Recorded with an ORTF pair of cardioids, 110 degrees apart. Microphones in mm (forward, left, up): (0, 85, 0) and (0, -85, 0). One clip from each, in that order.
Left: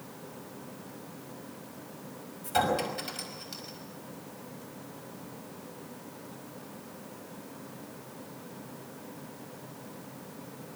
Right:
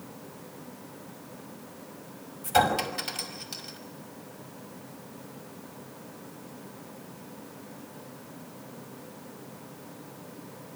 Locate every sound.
2.4 s a clink: 30° right, 5.5 m